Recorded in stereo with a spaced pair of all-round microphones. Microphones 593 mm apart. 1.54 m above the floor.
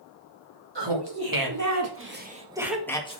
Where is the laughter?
45° right (ahead or behind), 2.5 m; by 3.2 s 10° left (ahead or behind), 1.9 m.